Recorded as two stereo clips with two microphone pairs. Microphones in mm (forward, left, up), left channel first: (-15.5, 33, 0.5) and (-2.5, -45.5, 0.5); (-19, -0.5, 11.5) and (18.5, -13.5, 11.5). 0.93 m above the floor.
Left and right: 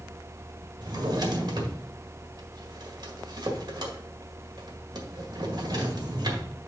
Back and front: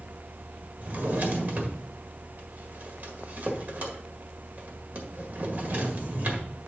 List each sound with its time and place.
0.8 s a drawer: 60° right, 1.7 m